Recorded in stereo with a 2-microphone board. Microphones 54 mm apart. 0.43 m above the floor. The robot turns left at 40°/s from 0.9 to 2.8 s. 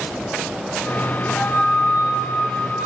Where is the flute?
150° left, 1.1 m; by 2.9 s 90° left, 1.1 m.